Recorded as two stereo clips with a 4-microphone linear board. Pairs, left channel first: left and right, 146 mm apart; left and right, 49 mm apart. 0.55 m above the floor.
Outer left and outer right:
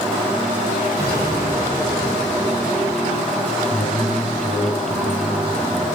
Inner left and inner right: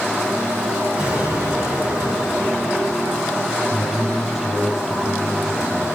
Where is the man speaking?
5° right (ahead or behind), 5 m.